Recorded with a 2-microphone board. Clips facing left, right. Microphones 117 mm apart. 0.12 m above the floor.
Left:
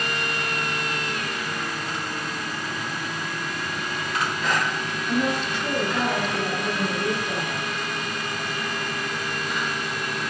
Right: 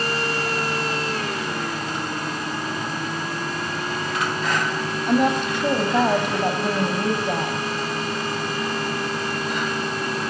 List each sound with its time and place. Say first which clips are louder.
5.1 s a woman speaking: right 5 dB; 50° right (ahead or behind), 6 m